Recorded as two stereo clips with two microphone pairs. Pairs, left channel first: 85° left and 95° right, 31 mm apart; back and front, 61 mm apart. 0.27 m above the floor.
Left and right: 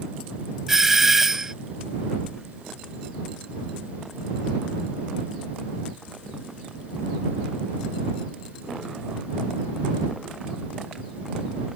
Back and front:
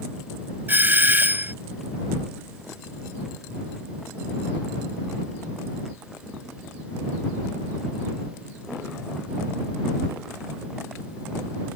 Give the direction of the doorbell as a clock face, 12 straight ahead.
1 o'clock.